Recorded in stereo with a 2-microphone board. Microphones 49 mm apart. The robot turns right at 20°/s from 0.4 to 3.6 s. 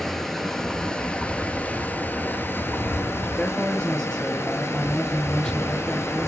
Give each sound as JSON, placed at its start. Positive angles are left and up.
{"t": 0.0, "sound": "running water", "azimuth_deg": 0, "distance_m": 0.9}
{"t": 3.4, "sound": "a man speaking", "side_deg": 15, "distance_m": 1.2}